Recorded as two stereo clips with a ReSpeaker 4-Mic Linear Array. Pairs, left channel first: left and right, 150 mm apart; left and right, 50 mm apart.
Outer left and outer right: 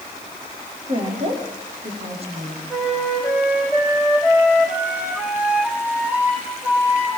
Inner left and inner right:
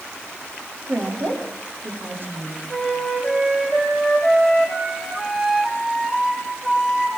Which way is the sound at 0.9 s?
45° right (ahead or behind).